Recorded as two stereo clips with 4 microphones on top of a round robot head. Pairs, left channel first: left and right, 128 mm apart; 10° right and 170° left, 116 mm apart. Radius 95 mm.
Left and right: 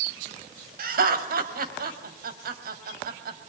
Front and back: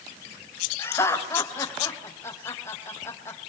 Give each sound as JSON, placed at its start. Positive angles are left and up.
{"t": 0.8, "sound": "laughter", "azimuth_deg": -80, "distance_m": 3.5}